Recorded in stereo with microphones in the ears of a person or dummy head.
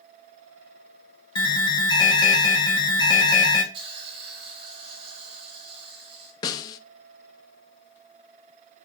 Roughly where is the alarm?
Left.